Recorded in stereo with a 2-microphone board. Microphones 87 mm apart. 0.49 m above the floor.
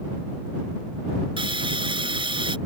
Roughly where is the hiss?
Right.